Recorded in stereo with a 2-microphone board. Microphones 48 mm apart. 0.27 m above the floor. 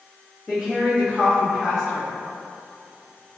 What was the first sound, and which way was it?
A woman speaking, centre (ahead or behind).